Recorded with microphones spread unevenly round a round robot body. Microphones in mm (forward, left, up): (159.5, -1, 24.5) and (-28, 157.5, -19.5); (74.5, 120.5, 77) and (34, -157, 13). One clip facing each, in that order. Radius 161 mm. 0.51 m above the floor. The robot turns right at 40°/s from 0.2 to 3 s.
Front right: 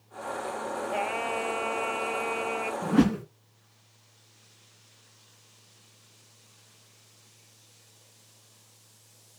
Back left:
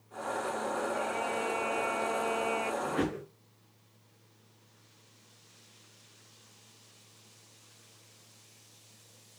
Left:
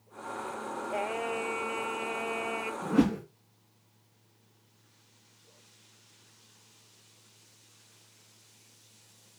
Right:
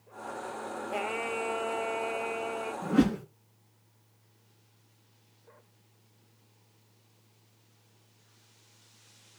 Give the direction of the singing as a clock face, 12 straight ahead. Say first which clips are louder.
Front right 2 dB, left 1 dB; 1 o'clock.